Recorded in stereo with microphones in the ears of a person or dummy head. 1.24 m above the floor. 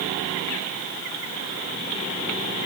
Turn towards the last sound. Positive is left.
No sound to turn to.